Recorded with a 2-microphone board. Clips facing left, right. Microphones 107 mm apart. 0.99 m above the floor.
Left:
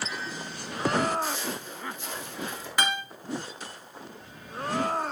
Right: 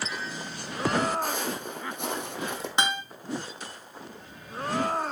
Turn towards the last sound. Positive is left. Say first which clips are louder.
# even
turn(degrees=-20)  # may be behind; listen again after turning